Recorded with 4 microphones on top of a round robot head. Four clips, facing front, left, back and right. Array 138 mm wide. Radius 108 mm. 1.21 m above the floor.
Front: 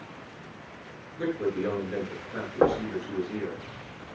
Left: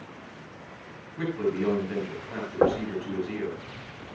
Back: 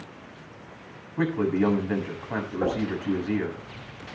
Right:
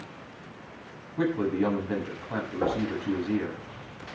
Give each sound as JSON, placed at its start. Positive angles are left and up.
{"t": 1.2, "sound": "a man speaking", "azimuth_deg": -150, "distance_m": 7.5}
{"t": 2.6, "sound": "knocking", "azimuth_deg": 50, "distance_m": 3.5}